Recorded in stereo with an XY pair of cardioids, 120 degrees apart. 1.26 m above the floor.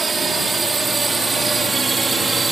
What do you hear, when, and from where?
0.0 s a drone: 30° right; by 2.5 s 25° right